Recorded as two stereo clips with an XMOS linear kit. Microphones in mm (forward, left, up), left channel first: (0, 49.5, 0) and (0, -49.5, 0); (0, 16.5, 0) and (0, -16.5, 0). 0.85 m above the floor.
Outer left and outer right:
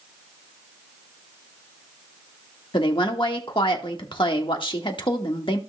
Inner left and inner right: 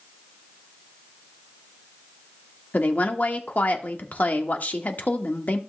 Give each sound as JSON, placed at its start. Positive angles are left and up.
{"t": 2.7, "sound": "a woman speaking", "side_deg": 55, "distance_m": 1.4}